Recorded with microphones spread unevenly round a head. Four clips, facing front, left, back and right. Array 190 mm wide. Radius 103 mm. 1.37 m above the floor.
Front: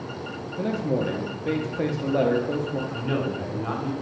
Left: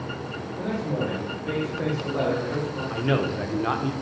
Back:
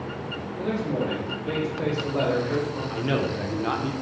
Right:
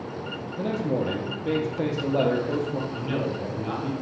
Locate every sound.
0.6 s a man speaking: 40° right, 0.6 m
2.9 s a man speaking: 125° left, 0.7 m